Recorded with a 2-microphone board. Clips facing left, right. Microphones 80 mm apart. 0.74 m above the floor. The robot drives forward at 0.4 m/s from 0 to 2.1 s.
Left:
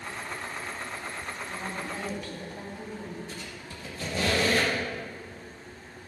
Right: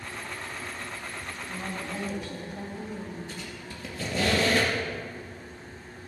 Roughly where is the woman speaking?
Right.